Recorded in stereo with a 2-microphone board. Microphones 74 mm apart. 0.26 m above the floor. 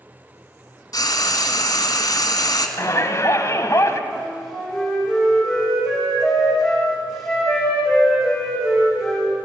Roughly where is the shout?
Left.